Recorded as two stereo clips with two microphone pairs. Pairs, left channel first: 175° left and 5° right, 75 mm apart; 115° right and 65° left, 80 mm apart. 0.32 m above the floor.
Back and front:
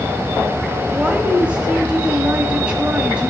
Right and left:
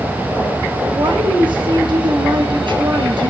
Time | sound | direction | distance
0.9 | a woman speaking | 70° left | 5 m